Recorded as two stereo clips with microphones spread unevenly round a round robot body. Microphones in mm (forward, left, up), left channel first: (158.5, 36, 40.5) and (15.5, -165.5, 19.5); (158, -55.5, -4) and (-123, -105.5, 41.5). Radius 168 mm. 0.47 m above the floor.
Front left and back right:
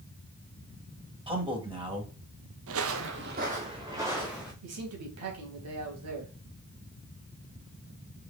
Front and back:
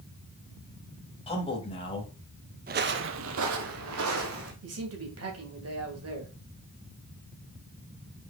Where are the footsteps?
130° right, 0.6 m; by 4.5 s 145° left, 1.3 m.